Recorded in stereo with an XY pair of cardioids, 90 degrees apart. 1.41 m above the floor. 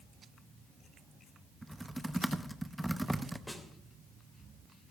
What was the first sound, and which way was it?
Typing on a keyboard, 5° right.